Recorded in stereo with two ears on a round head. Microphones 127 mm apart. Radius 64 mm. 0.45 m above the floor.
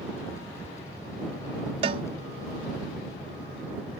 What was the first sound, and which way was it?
A cowbell, 40° right (ahead or behind).